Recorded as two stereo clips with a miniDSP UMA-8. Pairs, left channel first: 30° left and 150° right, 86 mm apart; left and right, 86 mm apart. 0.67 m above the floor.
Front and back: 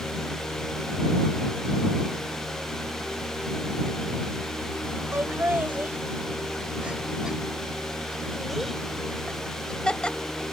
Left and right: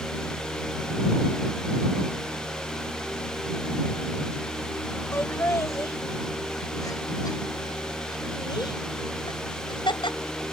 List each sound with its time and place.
5.1 s laughter: 150° left; by 10.2 s 110° left